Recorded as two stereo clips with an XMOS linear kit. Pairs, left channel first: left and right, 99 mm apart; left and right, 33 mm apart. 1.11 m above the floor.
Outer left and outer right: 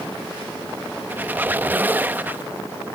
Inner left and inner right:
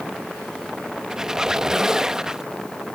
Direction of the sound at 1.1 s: 15° right (ahead or behind).